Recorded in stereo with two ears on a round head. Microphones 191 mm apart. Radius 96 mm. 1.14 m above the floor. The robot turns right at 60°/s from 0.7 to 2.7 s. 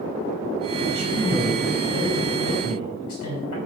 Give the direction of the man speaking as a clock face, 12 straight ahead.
1 o'clock.